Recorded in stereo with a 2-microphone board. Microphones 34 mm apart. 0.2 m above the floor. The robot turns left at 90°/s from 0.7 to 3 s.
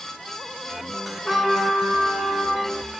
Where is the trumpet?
150° left, 0.9 m; by 2.7 s 20° left, 0.9 m.